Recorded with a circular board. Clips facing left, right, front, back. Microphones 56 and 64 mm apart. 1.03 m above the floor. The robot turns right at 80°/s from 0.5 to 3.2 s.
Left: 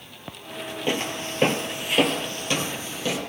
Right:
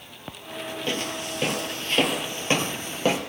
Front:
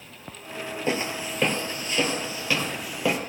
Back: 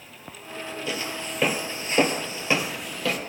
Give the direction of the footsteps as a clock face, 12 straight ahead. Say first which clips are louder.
Left 4 dB, front 5 dB; 11 o'clock.